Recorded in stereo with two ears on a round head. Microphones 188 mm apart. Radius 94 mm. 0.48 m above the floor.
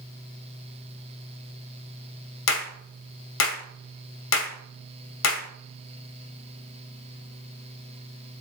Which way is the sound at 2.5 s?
70° left (ahead or behind).